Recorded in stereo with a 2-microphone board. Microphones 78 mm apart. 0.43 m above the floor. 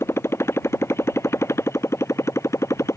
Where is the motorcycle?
30° left (ahead or behind); by 3.0 s 35° left (ahead or behind).